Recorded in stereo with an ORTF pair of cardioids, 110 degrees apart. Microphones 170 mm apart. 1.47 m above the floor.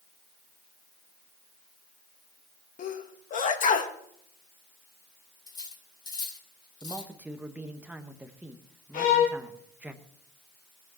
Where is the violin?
55° left, 4 m.